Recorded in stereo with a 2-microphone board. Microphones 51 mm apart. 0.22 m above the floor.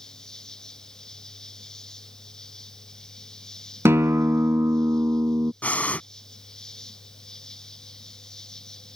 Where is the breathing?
30° left (ahead or behind).